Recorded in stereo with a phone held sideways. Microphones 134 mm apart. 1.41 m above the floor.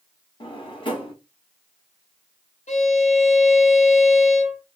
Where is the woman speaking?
No woman speaking in this recording.